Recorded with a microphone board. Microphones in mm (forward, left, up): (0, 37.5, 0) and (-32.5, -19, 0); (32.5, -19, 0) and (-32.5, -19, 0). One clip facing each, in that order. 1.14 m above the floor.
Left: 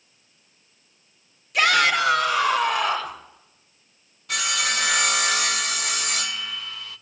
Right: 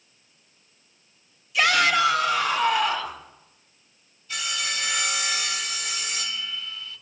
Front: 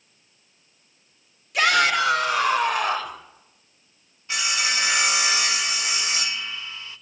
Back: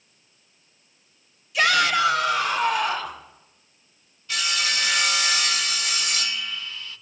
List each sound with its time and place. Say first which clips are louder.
1.5 s a shout: left 1 dB, front 1 dB; 30° left, 4 m
4.3 s sawing: left 5 dB, front 1 dB; 65° left, 1.0 m